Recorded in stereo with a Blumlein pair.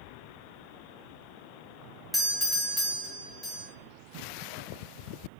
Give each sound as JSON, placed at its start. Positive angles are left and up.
{"t": 2.1, "sound": "a doorbell", "azimuth_deg": 5, "distance_m": 0.9}